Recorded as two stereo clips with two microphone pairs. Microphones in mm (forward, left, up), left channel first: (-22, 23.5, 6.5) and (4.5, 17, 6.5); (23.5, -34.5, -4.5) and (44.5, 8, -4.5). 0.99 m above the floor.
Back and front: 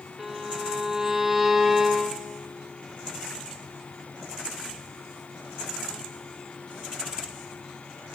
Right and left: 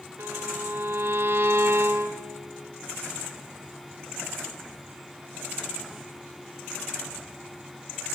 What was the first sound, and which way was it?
A violin, 65° left.